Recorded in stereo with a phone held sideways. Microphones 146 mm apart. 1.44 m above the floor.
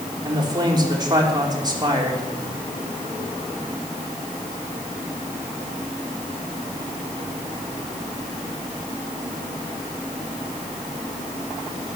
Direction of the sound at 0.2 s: 30° right (ahead or behind).